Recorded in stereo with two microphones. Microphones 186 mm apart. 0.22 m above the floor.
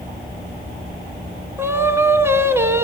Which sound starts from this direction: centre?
Singing, at 1.6 s.